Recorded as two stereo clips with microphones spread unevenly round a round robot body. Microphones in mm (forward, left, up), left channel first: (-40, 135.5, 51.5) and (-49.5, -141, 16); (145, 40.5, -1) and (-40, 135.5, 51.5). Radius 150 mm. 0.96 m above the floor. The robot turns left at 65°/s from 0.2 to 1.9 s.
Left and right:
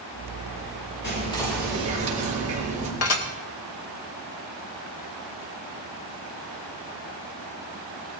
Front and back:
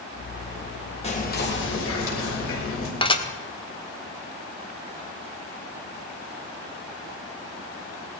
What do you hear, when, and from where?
1.0 s whispering: 30° left, 5.5 m; by 2.9 s 25° right, 5.5 m
3.0 s dishes clattering: 40° left, 1.8 m